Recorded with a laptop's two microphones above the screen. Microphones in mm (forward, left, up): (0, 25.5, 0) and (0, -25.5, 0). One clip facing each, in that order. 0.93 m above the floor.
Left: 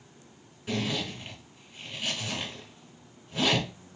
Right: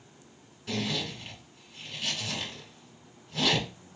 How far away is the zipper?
About 1.8 m.